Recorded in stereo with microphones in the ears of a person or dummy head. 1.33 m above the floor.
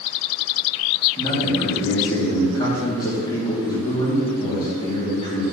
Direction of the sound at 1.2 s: 20° left (ahead or behind).